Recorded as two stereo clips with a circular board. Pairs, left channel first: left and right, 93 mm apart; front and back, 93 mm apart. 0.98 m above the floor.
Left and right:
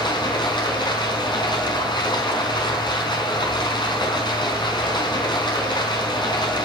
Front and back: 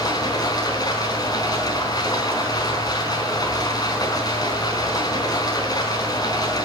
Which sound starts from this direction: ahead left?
Running water, at 0.0 s.